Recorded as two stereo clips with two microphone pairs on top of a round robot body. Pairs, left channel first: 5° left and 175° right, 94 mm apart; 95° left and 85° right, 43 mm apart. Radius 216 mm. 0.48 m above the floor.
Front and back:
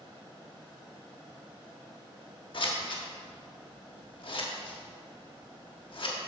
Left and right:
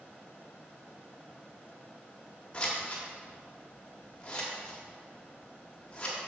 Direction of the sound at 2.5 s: 30° left.